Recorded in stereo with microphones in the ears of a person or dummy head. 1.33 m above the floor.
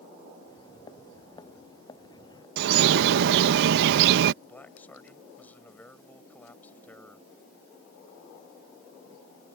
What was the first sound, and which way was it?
Footsteps, 25° left (ahead or behind).